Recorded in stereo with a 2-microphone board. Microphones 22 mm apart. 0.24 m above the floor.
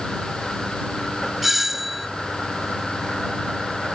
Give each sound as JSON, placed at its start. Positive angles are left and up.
{"t": 1.4, "sound": "a doorbell", "side_deg": -10}